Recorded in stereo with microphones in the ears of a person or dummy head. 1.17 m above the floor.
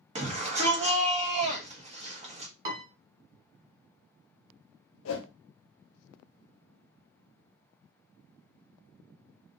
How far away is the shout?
About 0.8 m.